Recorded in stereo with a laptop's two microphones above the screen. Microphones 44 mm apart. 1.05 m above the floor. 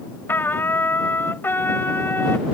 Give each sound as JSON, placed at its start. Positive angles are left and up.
{"t": 0.3, "sound": "a trumpet", "side_deg": 50}